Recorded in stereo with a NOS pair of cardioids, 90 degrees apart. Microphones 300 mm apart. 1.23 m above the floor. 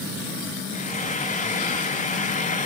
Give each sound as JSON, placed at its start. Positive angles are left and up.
{"t": 0.7, "sound": "frying", "azimuth_deg": 25, "distance_m": 2.0}